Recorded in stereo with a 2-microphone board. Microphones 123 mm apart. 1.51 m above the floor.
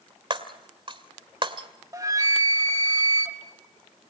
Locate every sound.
0.3 s breaking glass: 40° right (ahead or behind), 1.9 m
1.9 s a flute: 25° right (ahead or behind), 1.3 m